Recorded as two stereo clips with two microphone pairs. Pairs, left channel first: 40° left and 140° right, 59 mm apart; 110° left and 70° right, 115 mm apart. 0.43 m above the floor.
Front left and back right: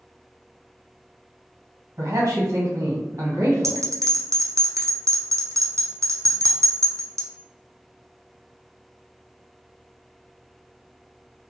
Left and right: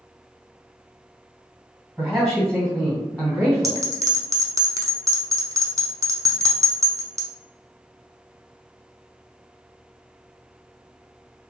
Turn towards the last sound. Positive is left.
turn(degrees=-125)